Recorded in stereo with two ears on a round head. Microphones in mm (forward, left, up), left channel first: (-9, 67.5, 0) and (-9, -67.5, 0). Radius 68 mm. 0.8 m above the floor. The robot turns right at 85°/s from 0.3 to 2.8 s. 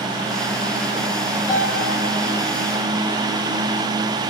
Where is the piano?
20° right (ahead or behind), 2.5 m; by 1.8 s 10° left (ahead or behind), 2.5 m.